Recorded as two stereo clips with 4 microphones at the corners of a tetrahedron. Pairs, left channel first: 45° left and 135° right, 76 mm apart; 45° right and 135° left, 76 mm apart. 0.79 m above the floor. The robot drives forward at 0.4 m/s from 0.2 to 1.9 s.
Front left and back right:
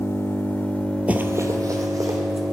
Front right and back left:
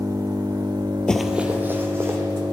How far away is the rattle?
I don't hear a rattle.